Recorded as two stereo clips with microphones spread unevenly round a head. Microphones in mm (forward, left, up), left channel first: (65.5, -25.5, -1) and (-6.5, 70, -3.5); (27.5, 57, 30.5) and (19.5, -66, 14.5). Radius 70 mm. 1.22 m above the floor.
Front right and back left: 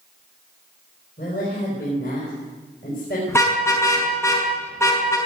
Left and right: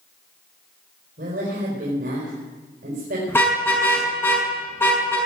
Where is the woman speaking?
85° right, 5 m.